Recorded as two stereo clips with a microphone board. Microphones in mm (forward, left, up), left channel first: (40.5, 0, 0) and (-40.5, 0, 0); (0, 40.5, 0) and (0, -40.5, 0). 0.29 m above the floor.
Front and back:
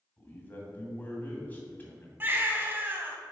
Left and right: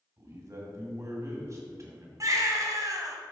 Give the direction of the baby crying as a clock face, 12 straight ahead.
4 o'clock.